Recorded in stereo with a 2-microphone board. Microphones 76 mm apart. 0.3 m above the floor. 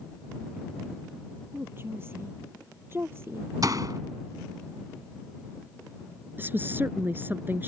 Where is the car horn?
I don't hear a car horn.